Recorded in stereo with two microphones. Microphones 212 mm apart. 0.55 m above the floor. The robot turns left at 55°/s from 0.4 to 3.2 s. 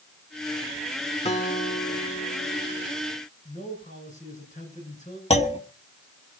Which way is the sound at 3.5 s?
35° left (ahead or behind).